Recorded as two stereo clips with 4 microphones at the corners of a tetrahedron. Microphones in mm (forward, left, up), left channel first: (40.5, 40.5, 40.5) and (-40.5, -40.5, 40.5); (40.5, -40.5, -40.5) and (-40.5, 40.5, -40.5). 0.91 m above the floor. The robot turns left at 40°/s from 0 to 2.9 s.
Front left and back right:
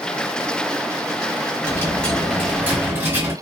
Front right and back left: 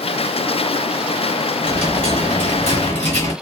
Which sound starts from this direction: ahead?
A dropped coin, at 1.6 s.